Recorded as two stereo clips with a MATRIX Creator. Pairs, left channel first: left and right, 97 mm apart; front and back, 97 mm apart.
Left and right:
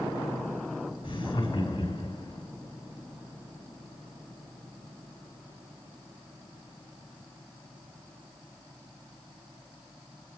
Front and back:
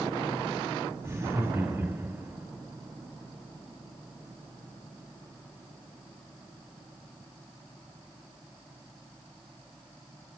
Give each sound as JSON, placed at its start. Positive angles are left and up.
{"t": 1.0, "sound": "laughter", "azimuth_deg": 115, "distance_m": 5.0}